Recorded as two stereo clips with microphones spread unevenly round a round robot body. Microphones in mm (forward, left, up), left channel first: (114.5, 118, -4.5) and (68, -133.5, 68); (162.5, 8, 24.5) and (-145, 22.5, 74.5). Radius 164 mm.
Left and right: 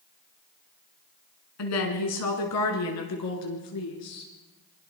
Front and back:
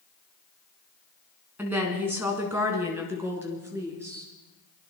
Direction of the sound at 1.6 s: 90° left.